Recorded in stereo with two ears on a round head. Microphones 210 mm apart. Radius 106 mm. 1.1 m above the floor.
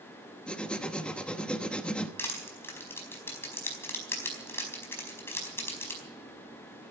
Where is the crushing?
10° left (ahead or behind), 4.5 m.